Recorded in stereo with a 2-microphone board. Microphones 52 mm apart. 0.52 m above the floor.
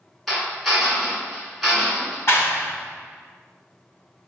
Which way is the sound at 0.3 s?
5° left (ahead or behind).